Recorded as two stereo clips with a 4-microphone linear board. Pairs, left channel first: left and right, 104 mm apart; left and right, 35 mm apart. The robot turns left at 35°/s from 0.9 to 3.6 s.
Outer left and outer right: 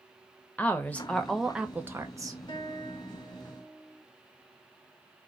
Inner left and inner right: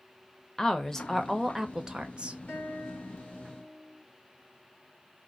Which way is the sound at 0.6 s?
15° left.